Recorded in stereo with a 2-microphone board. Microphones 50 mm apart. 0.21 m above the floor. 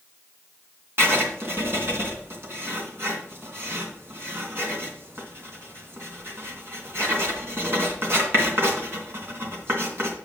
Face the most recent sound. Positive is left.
turn(degrees=-50)  # may be behind; listen again after turning